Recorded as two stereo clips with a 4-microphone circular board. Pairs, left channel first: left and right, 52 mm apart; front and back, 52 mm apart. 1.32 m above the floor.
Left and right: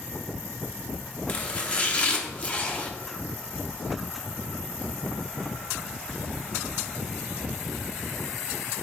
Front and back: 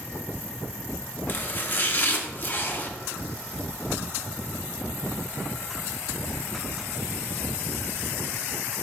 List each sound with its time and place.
1.3 s chopping: 40° left, 0.9 m